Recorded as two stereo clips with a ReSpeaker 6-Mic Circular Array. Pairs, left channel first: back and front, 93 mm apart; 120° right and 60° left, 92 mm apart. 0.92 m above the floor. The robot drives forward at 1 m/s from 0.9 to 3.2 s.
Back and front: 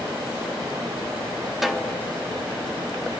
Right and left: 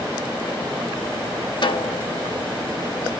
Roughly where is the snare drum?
Right.